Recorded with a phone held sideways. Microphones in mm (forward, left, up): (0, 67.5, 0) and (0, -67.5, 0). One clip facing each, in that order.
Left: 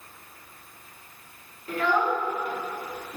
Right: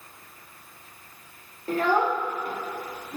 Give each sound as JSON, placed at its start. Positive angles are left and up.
{"t": 1.7, "sound": "a child speaking", "side_deg": -40, "distance_m": 0.8}